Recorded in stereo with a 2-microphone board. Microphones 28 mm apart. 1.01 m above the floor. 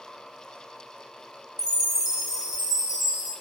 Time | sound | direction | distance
1.6 | a chime | 15° right (ahead or behind) | 1.2 m